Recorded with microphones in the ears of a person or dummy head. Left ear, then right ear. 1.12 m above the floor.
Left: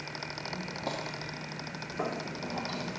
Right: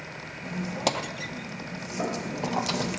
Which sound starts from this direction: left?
Knocking, at 2.0 s.